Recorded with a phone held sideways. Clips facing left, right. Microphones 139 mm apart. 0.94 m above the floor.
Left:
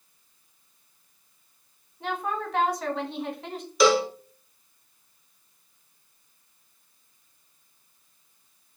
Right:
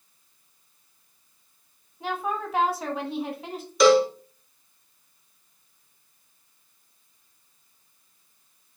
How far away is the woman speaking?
About 1.4 m.